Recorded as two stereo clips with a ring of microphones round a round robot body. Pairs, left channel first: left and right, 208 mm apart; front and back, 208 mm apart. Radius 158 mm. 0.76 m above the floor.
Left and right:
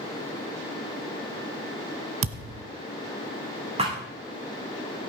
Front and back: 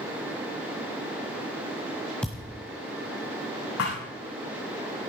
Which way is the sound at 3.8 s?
30° right.